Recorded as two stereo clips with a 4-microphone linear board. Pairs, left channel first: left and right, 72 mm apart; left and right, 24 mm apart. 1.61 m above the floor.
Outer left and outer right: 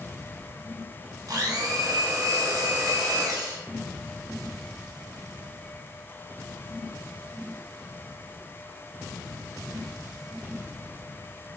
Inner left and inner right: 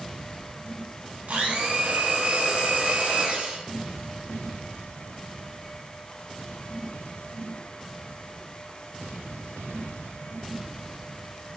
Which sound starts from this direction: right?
A blender, at 1.3 s.